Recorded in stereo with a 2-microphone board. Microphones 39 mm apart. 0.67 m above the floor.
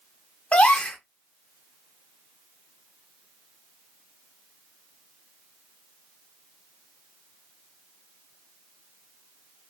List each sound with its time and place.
0.5 s a gasp: 40° left (ahead or behind), 0.8 m